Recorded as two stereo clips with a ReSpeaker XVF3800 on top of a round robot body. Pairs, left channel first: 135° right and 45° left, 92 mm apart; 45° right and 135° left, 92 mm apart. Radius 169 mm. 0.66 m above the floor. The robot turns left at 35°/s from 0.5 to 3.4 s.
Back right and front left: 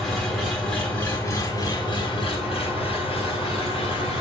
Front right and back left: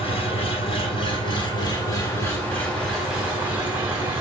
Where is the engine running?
50° right, 4 m; by 4.2 s 150° right, 4 m.